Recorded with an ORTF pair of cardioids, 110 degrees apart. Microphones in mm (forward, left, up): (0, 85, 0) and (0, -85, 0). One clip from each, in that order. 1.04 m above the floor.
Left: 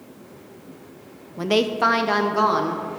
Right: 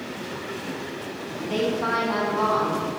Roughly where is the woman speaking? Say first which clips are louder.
Left 6 dB; ahead left.